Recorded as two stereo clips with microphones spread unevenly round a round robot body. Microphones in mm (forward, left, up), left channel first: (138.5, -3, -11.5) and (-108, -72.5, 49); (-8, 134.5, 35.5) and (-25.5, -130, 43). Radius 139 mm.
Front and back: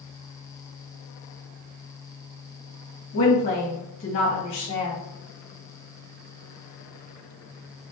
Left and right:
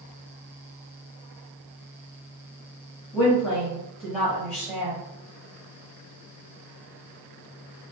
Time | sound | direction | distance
3.1 | a woman speaking | 10° right | 2.5 m